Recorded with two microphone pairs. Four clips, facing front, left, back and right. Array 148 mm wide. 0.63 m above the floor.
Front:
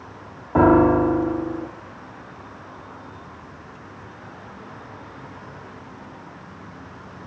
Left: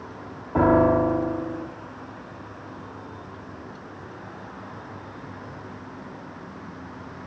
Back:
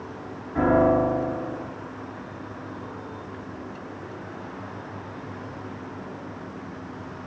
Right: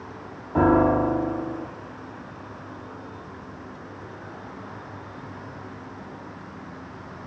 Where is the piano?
15° left, 2 m.